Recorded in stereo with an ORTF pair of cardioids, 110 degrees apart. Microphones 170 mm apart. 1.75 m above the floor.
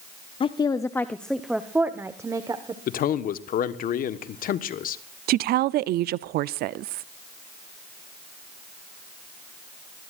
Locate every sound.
0.4 s a woman speaking: 30° left, 0.8 m; by 2.8 s 25° right, 1.4 m
2.9 s a man speaking: 60° left, 1.3 m
5.3 s a woman speaking: 65° right, 0.5 m